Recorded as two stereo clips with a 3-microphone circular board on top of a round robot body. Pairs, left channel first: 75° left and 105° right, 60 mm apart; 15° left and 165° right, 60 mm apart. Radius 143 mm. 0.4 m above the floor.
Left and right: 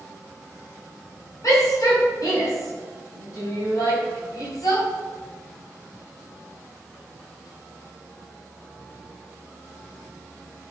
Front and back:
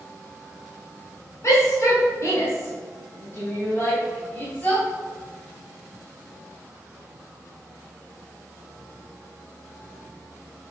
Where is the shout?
50° left, 3.5 m; by 4.8 s 75° left, 4.5 m.